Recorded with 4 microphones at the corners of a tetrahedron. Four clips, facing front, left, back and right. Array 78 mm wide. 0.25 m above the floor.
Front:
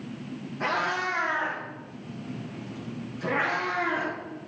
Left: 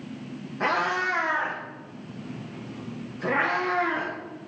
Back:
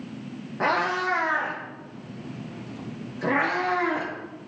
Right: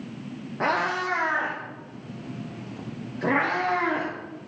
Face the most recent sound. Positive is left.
turn(degrees=-115)